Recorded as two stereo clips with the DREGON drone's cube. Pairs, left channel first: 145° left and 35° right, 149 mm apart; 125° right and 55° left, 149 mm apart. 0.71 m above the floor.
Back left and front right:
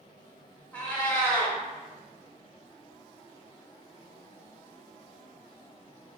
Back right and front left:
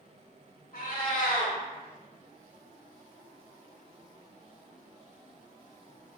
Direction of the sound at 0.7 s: 135° right.